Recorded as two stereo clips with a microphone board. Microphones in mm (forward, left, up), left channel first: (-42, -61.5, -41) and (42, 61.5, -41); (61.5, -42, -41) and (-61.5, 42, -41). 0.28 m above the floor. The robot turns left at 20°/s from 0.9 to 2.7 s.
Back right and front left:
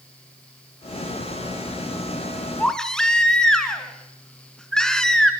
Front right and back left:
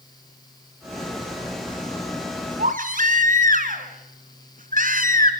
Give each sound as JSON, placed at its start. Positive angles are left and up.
{"t": 2.6, "sound": "a baby crying", "azimuth_deg": 150, "distance_m": 2.5}